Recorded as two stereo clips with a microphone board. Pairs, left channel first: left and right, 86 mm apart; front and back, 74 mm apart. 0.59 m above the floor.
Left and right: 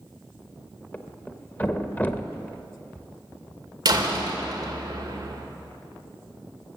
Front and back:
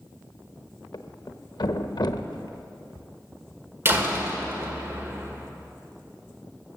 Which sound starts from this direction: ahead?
A thud, at 0.9 s.